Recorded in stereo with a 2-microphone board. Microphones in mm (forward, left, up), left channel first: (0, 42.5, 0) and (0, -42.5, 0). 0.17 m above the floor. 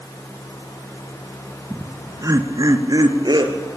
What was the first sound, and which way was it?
Laughter, 25° right (ahead or behind).